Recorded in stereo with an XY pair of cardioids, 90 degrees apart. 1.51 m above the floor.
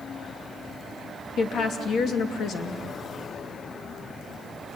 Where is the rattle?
No rattle in this recording.